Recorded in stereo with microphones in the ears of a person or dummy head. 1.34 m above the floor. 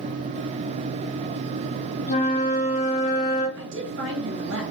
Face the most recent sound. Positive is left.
turn(degrees=-60)  # may be behind; listen again after turning